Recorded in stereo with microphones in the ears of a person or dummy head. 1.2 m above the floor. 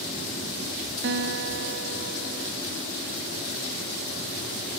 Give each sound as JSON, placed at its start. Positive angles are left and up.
{"t": 1.0, "sound": "a guitar", "side_deg": -60, "distance_m": 0.9}